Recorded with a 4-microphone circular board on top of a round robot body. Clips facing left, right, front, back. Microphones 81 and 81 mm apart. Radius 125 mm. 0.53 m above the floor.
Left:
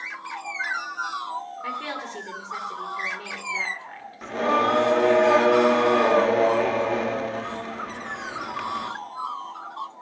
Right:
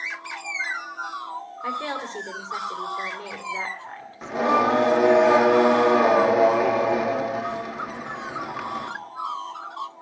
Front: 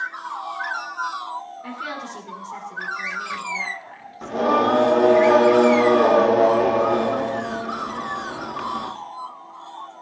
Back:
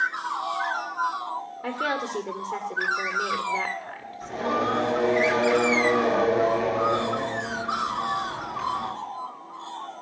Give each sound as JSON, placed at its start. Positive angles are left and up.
{"t": 1.6, "sound": "a woman speaking", "azimuth_deg": -165, "distance_m": 2.0}
{"t": 4.2, "sound": "singing", "azimuth_deg": -10, "distance_m": 1.3}